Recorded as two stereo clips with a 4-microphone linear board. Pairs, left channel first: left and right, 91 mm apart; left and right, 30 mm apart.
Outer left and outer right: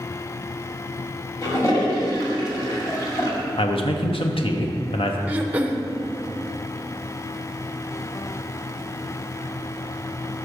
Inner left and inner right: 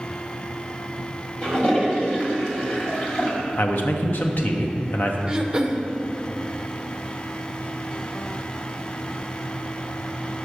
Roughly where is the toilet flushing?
Left.